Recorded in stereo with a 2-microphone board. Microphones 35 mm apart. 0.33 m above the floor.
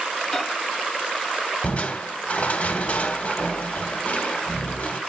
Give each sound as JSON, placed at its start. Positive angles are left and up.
{"t": 0.3, "sound": "a microwave", "side_deg": 20, "distance_m": 1.5}
{"t": 1.6, "sound": "crushing", "side_deg": 40, "distance_m": 1.2}